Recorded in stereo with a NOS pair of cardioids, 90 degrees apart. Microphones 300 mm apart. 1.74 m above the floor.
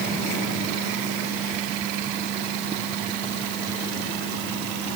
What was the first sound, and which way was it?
Only background noise.